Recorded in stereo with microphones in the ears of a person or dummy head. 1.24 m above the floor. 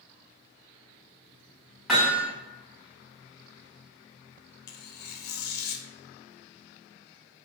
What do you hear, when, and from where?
1.9 s hammering: centre (ahead or behind), 1.3 m
4.7 s tearing paper: 55° left (ahead or behind), 0.7 m